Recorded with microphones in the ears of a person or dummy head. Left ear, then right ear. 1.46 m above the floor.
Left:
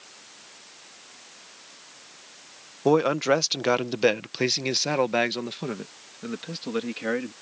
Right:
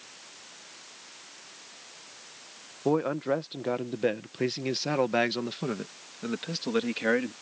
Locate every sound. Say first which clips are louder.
2.9 s a man speaking: left 6 dB; 80° left; by 7.3 s 10° right (ahead or behind)